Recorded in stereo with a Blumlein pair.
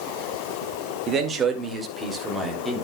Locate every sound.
1.1 s a man speaking: 25° right, 2.5 m; by 2.8 s 5° right, 3.5 m